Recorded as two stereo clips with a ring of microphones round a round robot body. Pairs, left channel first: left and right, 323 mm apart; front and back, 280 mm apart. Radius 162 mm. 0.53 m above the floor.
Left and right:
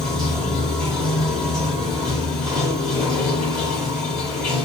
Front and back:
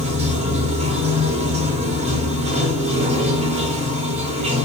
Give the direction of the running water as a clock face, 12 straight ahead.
6 o'clock.